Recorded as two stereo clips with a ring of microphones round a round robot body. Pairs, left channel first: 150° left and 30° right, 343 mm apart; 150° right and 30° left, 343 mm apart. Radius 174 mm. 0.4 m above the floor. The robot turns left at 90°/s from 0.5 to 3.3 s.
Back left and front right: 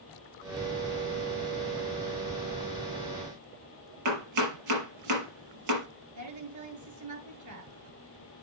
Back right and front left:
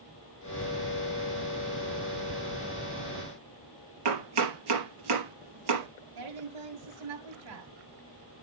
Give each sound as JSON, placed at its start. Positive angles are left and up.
{"t": 4.0, "sound": "chopping", "azimuth_deg": 10, "distance_m": 5.5}
{"t": 6.2, "sound": "a woman speaking", "azimuth_deg": 10, "distance_m": 8.0}